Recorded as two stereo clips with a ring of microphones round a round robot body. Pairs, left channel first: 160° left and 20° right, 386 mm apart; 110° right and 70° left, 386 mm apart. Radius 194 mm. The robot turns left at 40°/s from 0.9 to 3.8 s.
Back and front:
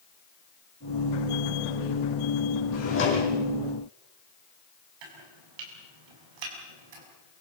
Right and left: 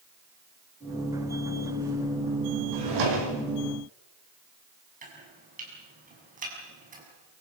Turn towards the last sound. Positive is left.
turn(degrees=-5)